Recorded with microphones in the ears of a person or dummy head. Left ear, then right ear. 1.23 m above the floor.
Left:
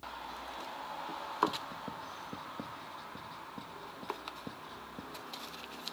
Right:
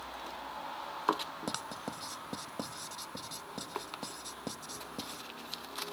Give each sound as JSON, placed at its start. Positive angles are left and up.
{"t": 1.5, "sound": "writing", "side_deg": -60}